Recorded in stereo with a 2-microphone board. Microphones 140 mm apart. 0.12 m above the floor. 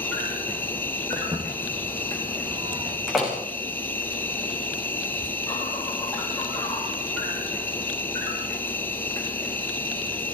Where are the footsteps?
30° right (ahead or behind), 6 m; by 3.0 s 20° right (ahead or behind), 5.5 m.